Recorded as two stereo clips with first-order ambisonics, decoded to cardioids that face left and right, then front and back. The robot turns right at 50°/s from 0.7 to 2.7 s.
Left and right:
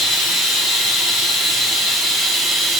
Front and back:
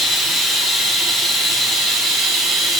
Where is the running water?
110° left, 0.9 m; by 2.8 s 150° right, 0.9 m.